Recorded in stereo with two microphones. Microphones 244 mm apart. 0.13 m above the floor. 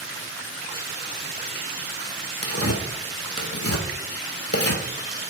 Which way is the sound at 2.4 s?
75° left (ahead or behind).